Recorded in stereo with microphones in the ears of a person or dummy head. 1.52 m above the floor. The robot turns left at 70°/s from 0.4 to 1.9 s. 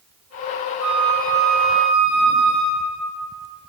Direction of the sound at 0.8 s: 155° right.